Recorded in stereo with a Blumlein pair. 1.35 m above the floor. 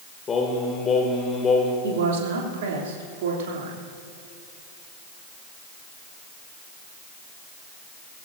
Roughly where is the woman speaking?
Ahead right.